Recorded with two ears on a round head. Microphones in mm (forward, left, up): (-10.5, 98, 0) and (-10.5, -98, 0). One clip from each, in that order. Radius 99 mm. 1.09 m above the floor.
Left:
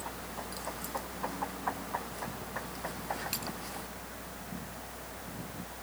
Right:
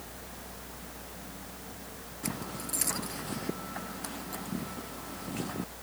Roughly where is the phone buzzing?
I don't hear a phone buzzing.